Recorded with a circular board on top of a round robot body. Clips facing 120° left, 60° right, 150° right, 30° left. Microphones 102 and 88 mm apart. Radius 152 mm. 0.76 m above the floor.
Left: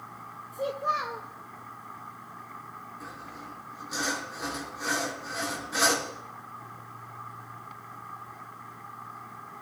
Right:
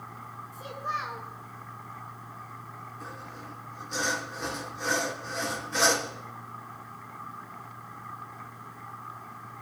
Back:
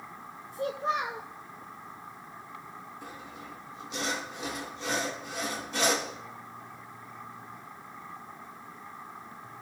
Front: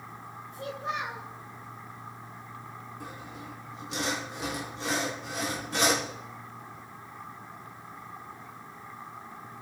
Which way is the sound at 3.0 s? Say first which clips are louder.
Even, front 2 dB; 35° left.